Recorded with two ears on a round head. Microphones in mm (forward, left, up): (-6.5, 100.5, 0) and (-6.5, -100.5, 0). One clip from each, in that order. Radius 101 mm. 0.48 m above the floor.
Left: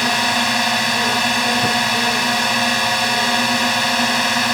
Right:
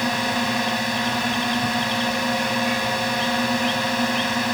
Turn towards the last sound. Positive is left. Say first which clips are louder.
# left 6 dB
turn(degrees=40)  # may be behind; listen again after turning